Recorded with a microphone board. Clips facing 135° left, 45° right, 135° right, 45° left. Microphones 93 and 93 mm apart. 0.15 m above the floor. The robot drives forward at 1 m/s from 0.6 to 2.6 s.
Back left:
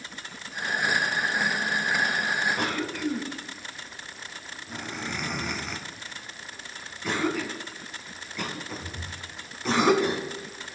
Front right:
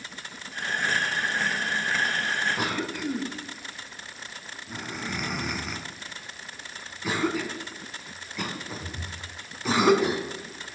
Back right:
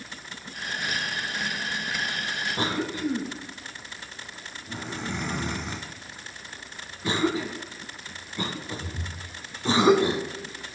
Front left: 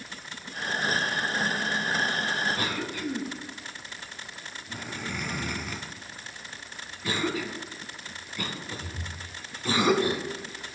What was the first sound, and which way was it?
A cough, 125° right.